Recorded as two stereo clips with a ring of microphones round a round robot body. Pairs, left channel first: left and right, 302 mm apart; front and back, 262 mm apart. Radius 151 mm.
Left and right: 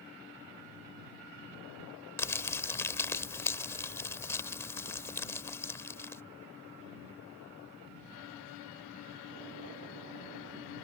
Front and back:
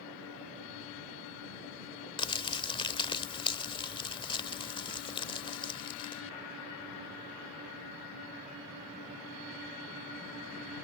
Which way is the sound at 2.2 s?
25° left.